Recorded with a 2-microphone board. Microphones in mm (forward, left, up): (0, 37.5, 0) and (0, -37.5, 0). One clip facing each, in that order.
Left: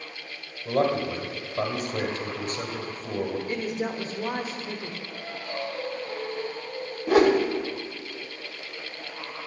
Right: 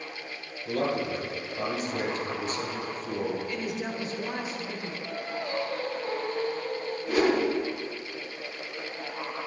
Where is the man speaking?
50° left (ahead or behind), 1.8 m.